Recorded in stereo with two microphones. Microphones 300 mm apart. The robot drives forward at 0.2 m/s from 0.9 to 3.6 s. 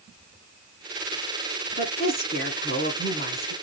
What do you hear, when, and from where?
1.8 s a woman speaking: 30° left (ahead or behind), 1.6 m